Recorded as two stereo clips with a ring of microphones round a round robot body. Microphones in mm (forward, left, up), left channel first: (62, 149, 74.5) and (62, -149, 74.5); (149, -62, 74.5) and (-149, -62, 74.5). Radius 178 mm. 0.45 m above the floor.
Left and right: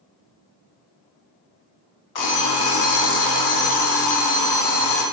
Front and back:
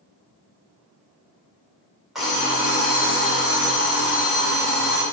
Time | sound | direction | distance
2.1 | an alarm clock | 90° left | 1.0 m